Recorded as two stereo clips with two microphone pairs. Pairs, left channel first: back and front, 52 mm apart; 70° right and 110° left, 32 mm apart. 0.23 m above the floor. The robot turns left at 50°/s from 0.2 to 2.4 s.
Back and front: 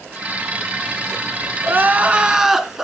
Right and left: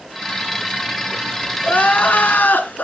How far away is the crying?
About 1.0 m.